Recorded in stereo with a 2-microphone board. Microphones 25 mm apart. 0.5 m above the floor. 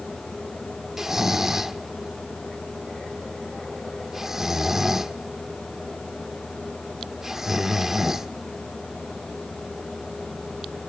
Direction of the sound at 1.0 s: 15° right (ahead or behind).